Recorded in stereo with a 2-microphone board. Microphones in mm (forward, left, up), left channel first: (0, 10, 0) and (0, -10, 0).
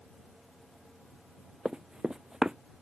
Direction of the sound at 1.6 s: 55° right (ahead or behind).